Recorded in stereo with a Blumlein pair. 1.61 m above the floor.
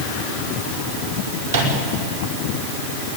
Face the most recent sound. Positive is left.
turn(degrees=-70)